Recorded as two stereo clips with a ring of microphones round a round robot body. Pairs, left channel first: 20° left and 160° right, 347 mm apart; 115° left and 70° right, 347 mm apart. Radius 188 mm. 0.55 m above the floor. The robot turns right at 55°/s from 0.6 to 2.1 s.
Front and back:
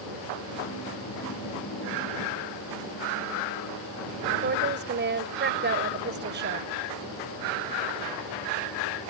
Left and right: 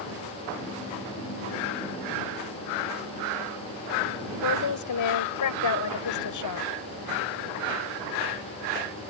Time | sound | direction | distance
4.4 | a woman speaking | 145° left | ?